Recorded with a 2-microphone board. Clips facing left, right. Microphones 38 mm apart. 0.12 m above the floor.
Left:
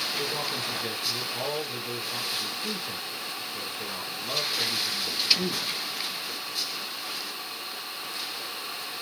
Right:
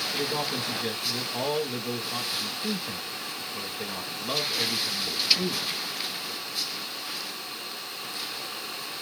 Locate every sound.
0.1 s a man speaking: 15° right (ahead or behind), 1.1 m